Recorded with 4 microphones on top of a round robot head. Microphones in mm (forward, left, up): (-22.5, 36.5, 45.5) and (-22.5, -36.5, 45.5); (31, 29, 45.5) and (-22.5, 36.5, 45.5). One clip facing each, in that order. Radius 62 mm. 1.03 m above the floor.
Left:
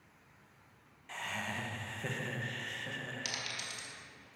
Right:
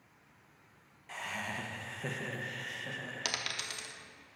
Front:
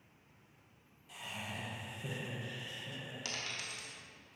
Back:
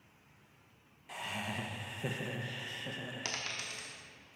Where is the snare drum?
No snare drum in this recording.